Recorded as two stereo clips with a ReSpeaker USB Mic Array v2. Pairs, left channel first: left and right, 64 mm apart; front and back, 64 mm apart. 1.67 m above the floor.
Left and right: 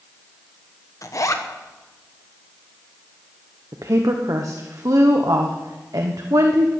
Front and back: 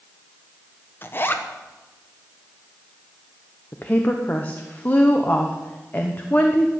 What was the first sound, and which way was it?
A zipper, 55° left.